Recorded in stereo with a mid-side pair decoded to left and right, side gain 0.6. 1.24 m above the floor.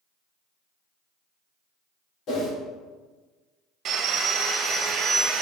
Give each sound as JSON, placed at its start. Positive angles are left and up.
{"t": 2.3, "sound": "a whoosh", "azimuth_deg": 55, "distance_m": 2.5}
{"t": 3.9, "sound": "sawing", "azimuth_deg": -55, "distance_m": 1.2}